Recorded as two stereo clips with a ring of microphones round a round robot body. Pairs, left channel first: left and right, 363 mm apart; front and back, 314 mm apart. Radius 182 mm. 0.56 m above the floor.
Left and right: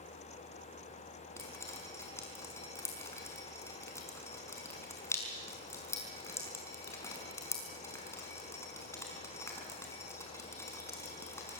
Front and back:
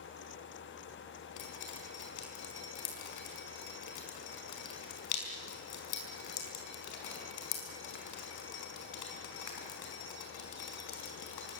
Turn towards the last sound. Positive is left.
turn(degrees=5)